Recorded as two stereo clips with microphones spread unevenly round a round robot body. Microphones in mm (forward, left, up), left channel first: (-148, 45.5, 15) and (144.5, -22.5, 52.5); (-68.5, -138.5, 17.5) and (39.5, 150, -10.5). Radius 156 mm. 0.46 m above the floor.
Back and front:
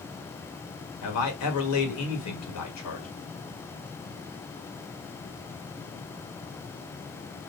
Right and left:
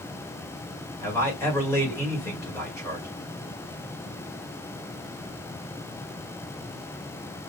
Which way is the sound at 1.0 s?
165° left.